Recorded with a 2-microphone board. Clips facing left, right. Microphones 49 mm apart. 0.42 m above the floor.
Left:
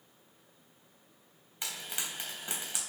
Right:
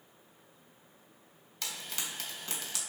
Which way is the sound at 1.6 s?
20° left (ahead or behind).